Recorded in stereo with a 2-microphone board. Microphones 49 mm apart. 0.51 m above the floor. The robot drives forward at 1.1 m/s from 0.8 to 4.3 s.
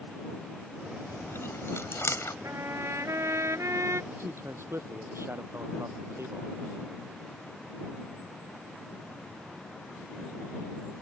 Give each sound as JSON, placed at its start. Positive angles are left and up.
{"t": 1.1, "sound": "chewing", "side_deg": 55}
{"t": 2.4, "sound": "a trumpet", "side_deg": -60}
{"t": 4.1, "sound": "a man speaking", "side_deg": -60}